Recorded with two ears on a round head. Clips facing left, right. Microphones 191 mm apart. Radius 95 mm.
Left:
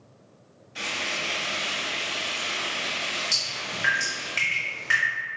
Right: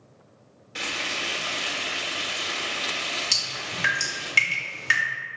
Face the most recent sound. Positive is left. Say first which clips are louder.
# even
turn(degrees=-45)  # may be behind; listen again after turning